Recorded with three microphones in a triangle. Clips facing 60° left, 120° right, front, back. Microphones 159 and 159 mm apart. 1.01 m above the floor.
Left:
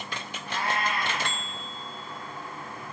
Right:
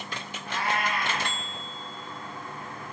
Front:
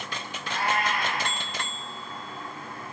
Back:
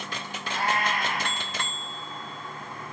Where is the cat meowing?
Straight ahead, 5.5 m.